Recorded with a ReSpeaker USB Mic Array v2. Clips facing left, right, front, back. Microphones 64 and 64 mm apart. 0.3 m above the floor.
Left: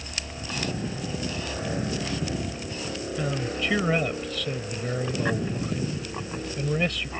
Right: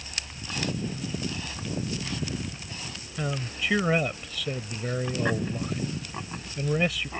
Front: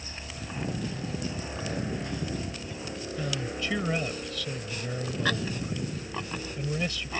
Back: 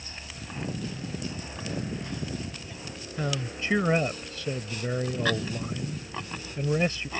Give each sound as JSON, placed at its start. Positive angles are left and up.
{"t": 0.0, "sound": "a helicopter", "azimuth_deg": 65}
{"t": 3.2, "sound": "a man speaking", "azimuth_deg": -175}